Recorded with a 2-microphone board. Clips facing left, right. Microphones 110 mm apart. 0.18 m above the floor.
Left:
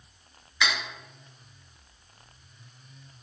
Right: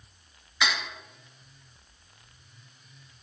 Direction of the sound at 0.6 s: 20° right (ahead or behind).